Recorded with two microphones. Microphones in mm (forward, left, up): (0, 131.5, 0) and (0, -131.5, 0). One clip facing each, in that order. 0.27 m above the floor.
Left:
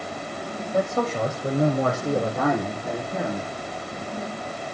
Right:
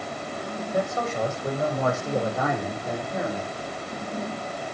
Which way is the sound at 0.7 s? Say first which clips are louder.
Left 4 dB; 35° left (ahead or behind).